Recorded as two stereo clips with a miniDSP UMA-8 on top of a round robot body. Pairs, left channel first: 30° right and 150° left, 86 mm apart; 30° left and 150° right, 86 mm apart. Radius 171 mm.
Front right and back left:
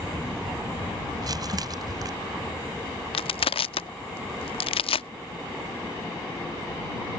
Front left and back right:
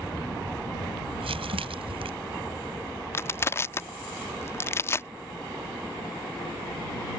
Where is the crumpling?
165° right.